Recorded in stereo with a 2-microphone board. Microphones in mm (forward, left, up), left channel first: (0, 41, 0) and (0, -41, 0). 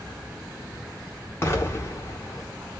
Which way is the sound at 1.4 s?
30° left (ahead or behind).